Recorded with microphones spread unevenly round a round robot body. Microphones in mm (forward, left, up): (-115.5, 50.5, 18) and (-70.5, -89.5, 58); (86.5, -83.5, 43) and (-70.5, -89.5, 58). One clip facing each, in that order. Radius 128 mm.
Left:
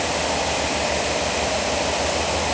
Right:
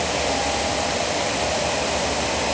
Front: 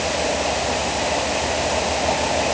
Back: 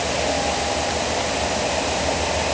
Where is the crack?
I don't hear a crack.